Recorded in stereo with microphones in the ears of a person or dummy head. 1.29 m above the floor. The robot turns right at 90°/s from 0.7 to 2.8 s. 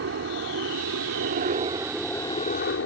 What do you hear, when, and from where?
0.0 s a helicopter: 115° right; by 2.9 s 70° left